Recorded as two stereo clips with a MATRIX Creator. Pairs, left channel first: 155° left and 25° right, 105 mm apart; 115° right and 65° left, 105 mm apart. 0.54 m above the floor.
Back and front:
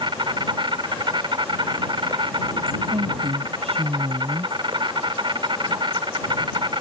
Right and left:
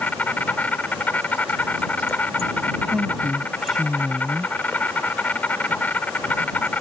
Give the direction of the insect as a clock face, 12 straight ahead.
1 o'clock.